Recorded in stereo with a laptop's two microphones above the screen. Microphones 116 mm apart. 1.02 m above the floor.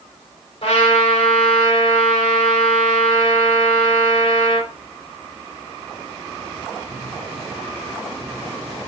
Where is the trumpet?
50° left (ahead or behind), 4.5 m.